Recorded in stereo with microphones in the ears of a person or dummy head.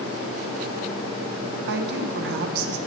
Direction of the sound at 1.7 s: 60° right (ahead or behind).